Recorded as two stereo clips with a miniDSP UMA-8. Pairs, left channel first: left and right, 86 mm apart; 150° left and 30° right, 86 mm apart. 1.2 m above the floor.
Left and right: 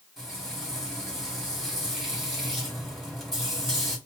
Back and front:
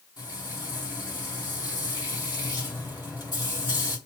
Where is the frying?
Straight behind, 1.8 m.